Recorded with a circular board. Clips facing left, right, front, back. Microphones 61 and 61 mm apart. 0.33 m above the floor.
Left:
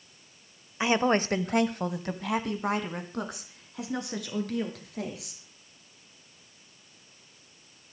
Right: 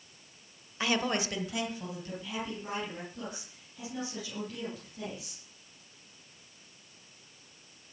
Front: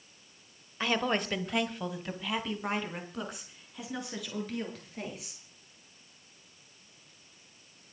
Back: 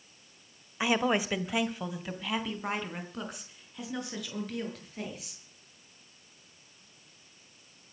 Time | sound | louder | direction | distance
0.8 | a woman speaking | left 6 dB, back 2 dB | 115° left | 1.0 m